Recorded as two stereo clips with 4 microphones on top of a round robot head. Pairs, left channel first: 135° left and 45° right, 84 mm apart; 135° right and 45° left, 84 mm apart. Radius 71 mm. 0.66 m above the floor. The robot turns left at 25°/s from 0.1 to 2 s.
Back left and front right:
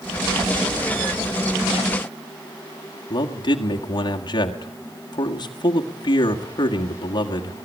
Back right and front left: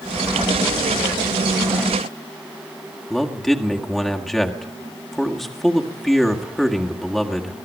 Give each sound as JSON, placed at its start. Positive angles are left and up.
{"t": 3.1, "sound": "a man speaking", "azimuth_deg": 140, "distance_m": 1.9}